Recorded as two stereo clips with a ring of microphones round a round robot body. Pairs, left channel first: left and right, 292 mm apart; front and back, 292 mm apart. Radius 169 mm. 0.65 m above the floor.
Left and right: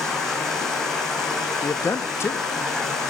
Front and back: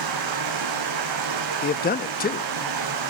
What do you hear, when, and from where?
0.0 s running water: straight behind, 5.5 m
1.6 s a man speaking: 15° left, 0.6 m